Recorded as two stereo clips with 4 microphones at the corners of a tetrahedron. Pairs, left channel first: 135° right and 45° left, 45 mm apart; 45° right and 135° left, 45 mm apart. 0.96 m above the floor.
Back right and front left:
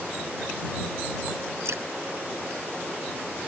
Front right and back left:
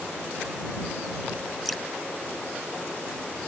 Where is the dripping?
45° left.